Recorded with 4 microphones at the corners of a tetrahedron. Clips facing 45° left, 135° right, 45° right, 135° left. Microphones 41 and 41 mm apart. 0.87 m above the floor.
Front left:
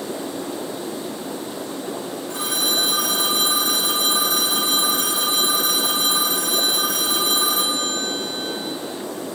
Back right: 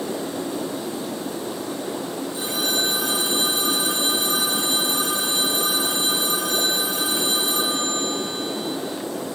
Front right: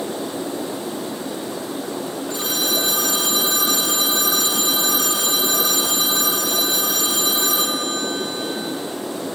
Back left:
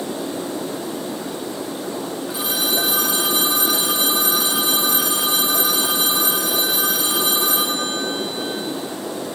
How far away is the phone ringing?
About 4.5 m.